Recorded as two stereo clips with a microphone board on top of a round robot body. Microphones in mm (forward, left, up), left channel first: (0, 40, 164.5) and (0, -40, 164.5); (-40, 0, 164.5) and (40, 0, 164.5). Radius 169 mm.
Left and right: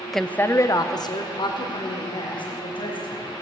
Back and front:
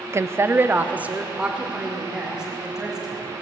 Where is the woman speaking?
Straight ahead, 0.7 m; by 3.3 s 85° left, 3.5 m.